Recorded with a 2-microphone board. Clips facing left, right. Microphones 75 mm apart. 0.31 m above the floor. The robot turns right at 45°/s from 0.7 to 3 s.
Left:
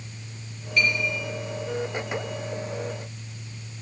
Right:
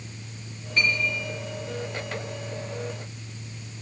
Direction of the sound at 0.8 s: 30° right (ahead or behind).